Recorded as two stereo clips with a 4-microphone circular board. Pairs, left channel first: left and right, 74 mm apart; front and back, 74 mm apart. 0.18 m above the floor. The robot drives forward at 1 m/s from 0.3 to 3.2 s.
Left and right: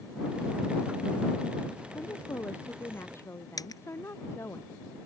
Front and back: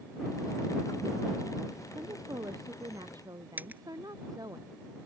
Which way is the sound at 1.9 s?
145° left.